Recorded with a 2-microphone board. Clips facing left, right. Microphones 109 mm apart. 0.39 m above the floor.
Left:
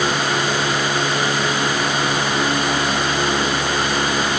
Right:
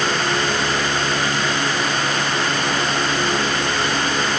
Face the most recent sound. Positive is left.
No sound to turn to.